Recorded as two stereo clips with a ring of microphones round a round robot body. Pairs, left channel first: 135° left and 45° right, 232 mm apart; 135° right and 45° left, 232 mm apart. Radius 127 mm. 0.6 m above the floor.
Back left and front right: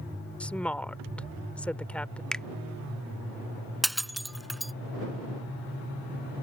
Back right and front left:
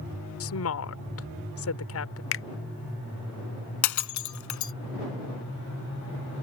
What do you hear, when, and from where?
0.4 s a woman speaking: 140° right
2.3 s a finger snap: 140° right
3.8 s breaking glass: 135° right